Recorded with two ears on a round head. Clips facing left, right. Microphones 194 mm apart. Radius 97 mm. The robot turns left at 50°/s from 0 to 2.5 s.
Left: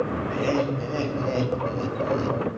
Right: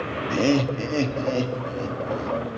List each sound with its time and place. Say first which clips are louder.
0.3 s laughter: right 6 dB; 60° right (ahead or behind), 0.5 m; by 2.4 s 40° left (ahead or behind), 0.5 m